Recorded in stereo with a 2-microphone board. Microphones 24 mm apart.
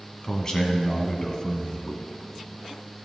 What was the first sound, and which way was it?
A man speaking, 30° left (ahead or behind).